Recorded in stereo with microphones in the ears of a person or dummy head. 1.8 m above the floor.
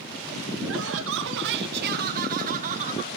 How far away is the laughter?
About 1.8 m.